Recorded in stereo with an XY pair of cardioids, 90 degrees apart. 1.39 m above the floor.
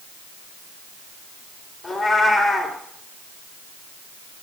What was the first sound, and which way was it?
A cat meowing, 10° left.